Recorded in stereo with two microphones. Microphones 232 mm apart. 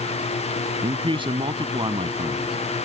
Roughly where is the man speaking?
Right.